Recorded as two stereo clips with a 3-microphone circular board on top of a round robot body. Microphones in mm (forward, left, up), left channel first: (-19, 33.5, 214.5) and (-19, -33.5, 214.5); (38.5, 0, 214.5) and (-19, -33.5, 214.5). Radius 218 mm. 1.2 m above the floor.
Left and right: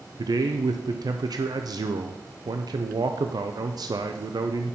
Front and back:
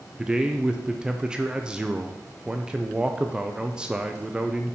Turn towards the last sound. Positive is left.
turn(degrees=-70)